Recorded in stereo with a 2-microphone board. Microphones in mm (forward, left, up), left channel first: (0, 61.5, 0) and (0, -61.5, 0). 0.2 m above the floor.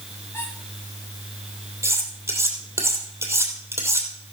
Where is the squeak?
15° left (ahead or behind), 7.5 m.